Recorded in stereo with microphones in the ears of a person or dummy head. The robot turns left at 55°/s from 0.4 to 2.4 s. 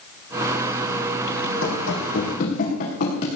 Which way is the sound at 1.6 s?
65° left (ahead or behind).